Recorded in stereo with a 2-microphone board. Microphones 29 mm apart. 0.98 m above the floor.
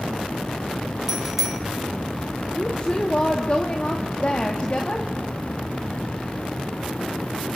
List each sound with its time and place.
1.1 s a bicycle bell: 5° right (ahead or behind), 2.5 m
2.5 s a woman speaking: 40° left (ahead or behind), 2.0 m